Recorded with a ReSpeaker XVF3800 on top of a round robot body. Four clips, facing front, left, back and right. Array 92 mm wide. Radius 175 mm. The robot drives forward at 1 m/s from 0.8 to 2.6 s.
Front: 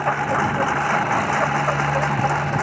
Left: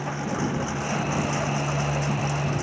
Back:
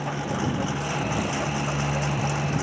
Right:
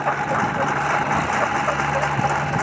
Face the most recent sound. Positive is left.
turn(degrees=-45)